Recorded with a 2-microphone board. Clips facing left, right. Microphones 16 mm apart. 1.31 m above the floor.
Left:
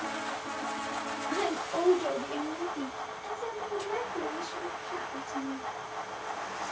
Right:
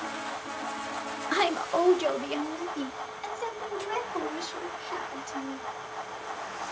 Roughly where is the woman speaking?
Right.